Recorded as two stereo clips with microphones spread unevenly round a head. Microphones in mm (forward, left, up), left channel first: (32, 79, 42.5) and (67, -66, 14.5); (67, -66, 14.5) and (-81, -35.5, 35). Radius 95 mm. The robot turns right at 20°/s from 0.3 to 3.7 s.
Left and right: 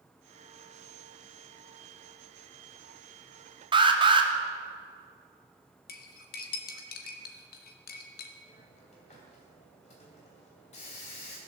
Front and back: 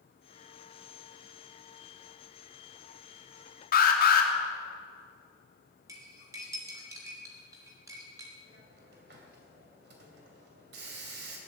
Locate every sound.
3.7 s an alarm: 25° right, 3 m
5.9 s cutlery clinking: 95° left, 1.3 m
8.4 s a hiss: 155° left, 2.5 m